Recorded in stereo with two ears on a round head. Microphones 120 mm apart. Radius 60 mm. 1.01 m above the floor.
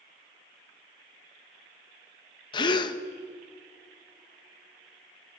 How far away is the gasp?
About 1.0 m.